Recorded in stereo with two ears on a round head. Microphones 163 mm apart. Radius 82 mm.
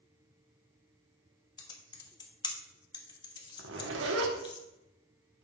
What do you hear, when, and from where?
1.6 s typing on a keyboard: 25° left (ahead or behind), 1.0 m
3.6 s a zipper: 75° right (ahead or behind), 1.2 m